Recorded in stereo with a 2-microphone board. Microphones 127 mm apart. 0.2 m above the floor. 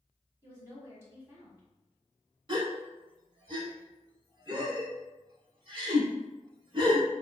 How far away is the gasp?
About 0.5 m.